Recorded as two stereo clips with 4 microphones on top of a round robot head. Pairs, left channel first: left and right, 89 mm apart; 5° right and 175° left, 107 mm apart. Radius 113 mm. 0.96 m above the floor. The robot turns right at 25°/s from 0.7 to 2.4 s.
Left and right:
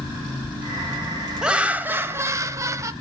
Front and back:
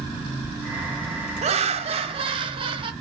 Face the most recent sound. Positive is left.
turn(degrees=-145)